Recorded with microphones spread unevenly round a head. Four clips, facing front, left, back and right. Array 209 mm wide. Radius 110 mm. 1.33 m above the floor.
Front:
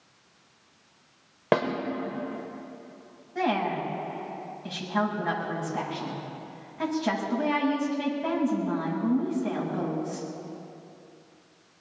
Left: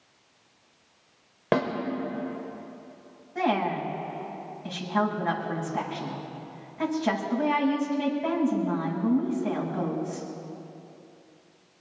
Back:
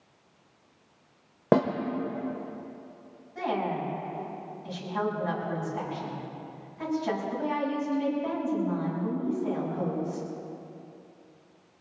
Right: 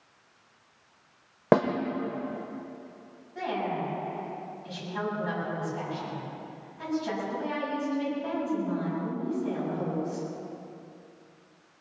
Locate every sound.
1.5 s a snare drum: 140° right, 1.1 m
3.4 s a woman speaking: 40° left, 6.5 m